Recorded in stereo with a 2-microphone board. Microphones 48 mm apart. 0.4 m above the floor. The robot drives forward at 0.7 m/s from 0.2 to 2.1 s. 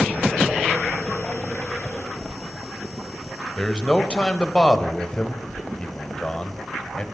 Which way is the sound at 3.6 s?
20° left (ahead or behind).